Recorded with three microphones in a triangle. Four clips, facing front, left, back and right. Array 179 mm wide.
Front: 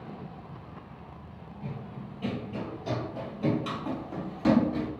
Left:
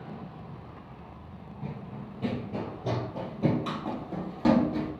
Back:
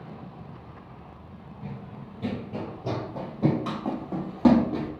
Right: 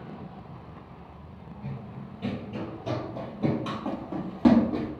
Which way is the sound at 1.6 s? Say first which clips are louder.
Left 1 dB, even; 90° left.